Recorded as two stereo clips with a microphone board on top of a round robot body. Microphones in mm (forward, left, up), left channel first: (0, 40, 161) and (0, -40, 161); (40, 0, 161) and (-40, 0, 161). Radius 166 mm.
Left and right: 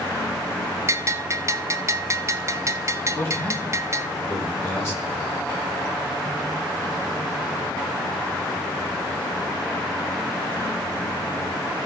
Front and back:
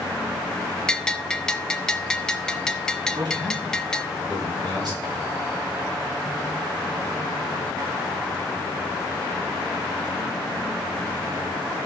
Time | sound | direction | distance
0.9 | a bell | 75° right | 1.1 m
3.1 | a man speaking | 145° left | 6.5 m